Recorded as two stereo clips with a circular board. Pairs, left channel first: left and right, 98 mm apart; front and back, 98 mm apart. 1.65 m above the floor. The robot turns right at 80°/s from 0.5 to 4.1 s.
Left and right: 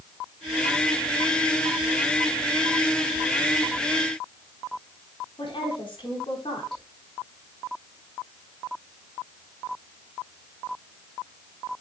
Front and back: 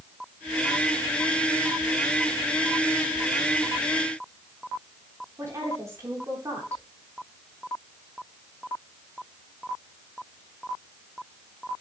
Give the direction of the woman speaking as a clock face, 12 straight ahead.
8 o'clock.